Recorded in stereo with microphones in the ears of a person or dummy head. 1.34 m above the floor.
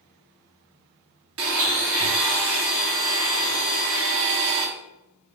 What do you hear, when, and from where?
1.4 s a blender: 75° right (ahead or behind), 0.9 m